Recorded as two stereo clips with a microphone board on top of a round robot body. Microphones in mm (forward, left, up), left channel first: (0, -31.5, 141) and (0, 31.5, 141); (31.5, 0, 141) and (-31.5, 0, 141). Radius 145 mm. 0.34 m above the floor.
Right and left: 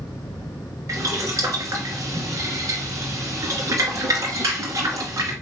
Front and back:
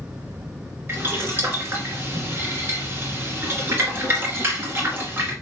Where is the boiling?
125° left, 2 m.